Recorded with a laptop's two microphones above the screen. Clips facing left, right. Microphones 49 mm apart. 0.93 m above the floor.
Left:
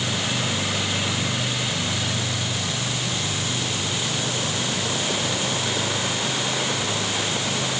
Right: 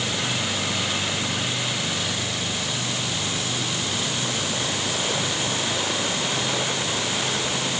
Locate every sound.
Only background noise.